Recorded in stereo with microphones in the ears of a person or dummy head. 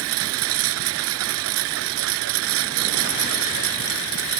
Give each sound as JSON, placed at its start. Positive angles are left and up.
{"t": 0.0, "sound": "a lawn mower", "side_deg": -75}